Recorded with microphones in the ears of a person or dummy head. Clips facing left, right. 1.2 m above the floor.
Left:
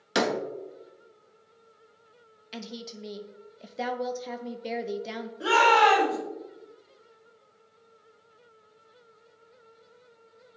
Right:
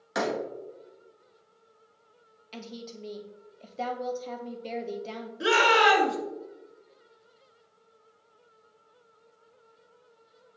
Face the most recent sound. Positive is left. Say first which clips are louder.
# left 1 dB
turn(degrees=-25)  # may be behind; listen again after turning